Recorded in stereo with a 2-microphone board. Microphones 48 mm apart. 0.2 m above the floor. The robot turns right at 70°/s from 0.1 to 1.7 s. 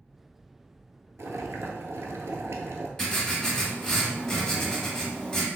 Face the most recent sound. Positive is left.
turn(degrees=15)  # may be behind; listen again after turning